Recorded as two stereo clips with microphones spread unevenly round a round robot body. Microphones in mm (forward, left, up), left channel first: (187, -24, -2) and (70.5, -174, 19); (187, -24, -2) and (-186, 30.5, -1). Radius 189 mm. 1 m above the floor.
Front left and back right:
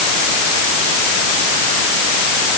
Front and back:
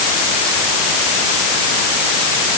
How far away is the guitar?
I don't hear a guitar.